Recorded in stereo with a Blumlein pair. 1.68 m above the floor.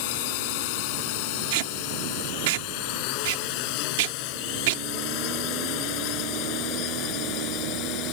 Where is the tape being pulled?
50° right.